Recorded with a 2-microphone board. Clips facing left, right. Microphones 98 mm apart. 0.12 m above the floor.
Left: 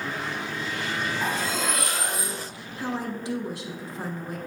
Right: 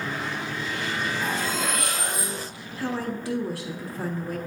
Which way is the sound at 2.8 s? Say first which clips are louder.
Right 1 dB; 20° left (ahead or behind).